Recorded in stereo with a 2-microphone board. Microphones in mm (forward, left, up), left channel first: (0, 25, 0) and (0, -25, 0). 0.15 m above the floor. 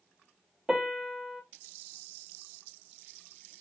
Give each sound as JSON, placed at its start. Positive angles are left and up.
{"t": 0.7, "sound": "a piano", "side_deg": -5, "distance_m": 0.5}